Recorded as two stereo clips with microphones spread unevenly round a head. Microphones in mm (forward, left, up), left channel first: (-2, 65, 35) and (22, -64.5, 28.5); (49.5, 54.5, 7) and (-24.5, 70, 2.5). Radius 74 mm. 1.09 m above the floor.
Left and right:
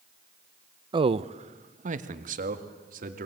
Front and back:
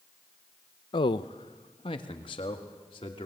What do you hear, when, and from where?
0.9 s a man speaking: 30° right, 0.6 m; by 3.3 s 60° right, 2.5 m